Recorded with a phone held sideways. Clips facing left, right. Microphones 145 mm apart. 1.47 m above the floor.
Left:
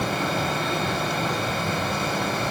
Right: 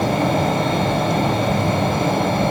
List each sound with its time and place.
0.0 s a fan: 55° right (ahead or behind), 1.4 m